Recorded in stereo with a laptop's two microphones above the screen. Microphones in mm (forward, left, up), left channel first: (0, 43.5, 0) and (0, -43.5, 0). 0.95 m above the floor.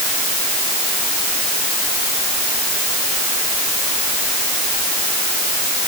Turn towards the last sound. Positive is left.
No sound to turn to.